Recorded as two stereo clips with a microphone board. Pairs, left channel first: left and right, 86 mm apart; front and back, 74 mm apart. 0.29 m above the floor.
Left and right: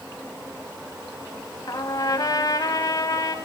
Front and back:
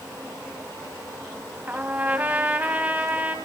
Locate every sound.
1.7 s a trumpet: 120° left, 1.6 m